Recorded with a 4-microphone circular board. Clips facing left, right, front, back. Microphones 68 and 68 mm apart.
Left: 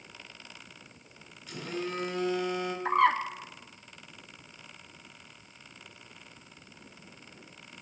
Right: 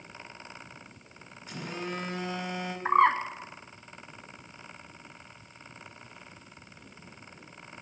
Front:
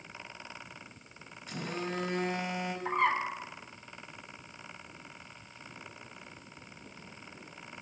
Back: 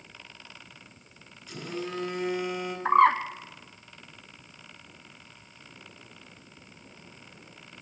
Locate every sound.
1.5 s a phone buzzing: 40° right, 4 m
2.9 s a bird: 155° right, 1.0 m